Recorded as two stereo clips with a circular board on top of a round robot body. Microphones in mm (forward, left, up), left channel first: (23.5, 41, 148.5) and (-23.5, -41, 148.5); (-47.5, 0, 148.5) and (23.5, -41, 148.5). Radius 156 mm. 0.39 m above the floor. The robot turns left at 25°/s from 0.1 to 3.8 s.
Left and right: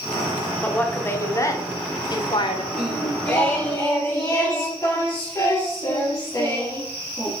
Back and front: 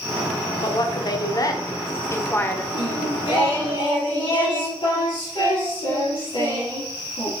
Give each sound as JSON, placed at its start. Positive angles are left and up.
{"t": 0.6, "sound": "a woman speaking", "azimuth_deg": 135, "distance_m": 1.4}
{"t": 2.7, "sound": "singing", "azimuth_deg": 145, "distance_m": 3.5}